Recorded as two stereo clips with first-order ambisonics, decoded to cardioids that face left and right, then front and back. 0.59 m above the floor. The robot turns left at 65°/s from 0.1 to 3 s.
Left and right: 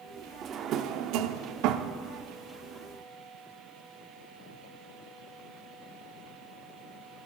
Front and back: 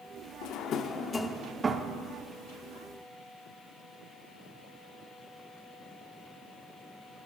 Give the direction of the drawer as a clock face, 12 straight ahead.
1 o'clock.